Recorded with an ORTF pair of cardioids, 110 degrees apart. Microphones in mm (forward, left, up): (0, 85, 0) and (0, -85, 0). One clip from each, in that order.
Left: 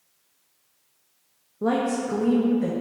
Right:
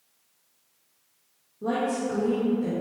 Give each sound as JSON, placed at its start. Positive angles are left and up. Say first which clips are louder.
{"t": 1.6, "sound": "a woman speaking", "louder": "left 3 dB", "azimuth_deg": 55, "distance_m": 0.7}